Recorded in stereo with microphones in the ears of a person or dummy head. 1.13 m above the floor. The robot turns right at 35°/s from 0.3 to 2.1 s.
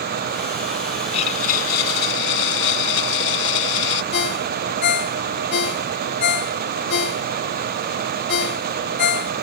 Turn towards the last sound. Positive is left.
turn(degrees=60)  # may be behind; listen again after turning